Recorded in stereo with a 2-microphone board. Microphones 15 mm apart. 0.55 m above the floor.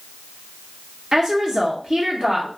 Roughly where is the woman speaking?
Right.